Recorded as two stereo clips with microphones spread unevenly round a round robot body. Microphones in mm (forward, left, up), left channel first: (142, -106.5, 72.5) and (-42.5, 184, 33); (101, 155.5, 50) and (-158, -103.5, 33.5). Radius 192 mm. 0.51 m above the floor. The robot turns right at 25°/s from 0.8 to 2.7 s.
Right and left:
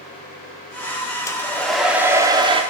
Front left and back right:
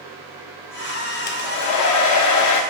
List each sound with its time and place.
1.3 s a hair dryer: 30° left, 0.7 m; by 2.6 s 60° left, 0.7 m